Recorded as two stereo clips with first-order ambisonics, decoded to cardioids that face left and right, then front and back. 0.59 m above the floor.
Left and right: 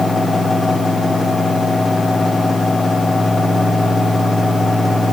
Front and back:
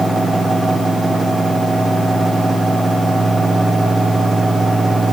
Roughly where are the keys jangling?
I don't hear keys jangling.